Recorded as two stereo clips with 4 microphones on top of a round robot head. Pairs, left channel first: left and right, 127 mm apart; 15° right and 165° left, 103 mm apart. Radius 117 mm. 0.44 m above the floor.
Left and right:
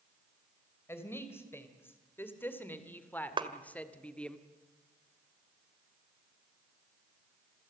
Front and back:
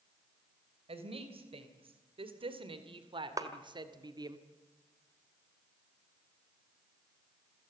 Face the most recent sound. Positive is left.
turn(degrees=-140)